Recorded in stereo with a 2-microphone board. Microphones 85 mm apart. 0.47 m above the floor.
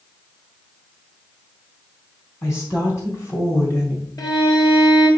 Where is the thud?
I don't hear a thud.